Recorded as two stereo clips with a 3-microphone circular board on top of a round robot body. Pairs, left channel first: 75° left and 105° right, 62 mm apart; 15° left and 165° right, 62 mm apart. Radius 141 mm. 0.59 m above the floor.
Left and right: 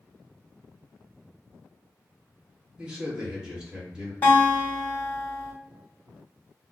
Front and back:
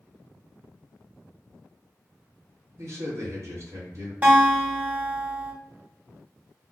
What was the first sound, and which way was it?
A man speaking, straight behind.